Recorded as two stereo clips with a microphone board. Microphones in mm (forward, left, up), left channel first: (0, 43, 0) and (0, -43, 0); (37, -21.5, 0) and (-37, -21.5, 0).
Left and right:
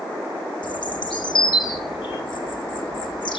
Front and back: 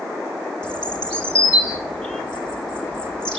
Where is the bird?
75° left, 1.6 m.